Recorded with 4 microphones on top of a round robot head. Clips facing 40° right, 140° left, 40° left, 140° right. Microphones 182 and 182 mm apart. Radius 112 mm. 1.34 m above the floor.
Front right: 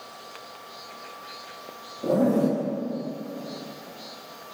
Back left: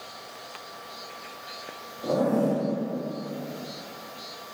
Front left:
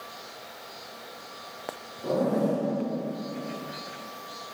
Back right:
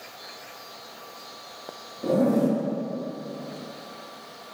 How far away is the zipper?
About 3 m.